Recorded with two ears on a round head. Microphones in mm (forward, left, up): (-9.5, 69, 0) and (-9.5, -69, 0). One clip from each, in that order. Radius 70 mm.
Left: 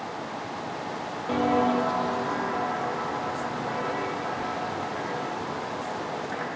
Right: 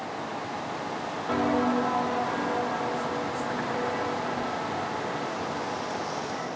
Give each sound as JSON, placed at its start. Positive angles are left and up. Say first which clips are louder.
{"t": 1.3, "sound": "footsteps", "louder": "left 2 dB", "side_deg": 5, "distance_m": 0.7}